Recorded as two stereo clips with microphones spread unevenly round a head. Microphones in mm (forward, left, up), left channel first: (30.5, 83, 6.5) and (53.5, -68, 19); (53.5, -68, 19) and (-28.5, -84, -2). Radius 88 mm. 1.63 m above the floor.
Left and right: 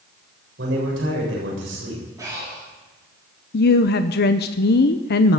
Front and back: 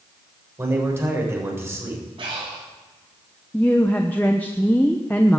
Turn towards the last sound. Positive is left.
turn(degrees=85)